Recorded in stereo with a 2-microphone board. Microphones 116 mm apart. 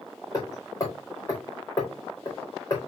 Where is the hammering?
30° left (ahead or behind), 3.5 m.